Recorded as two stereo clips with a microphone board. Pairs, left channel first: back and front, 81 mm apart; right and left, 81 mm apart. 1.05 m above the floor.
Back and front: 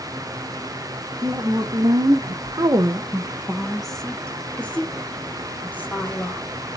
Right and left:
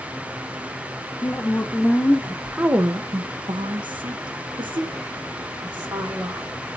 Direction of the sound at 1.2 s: 35° right.